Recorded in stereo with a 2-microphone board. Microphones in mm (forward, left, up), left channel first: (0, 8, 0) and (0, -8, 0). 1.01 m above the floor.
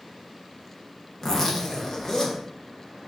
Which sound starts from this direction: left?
A zipper, at 1.2 s.